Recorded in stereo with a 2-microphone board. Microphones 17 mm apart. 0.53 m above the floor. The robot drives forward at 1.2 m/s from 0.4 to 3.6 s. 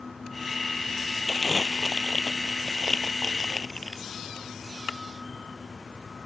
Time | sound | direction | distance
1.3 | crumpling | 25° left (ahead or behind) | ?